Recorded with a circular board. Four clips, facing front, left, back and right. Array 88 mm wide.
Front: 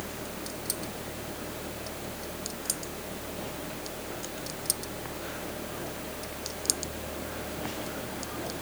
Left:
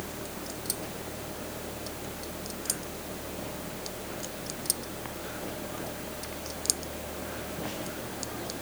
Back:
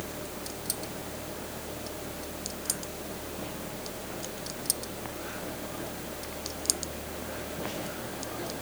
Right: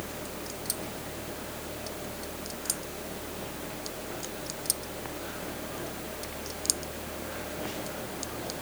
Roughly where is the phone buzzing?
I don't hear a phone buzzing.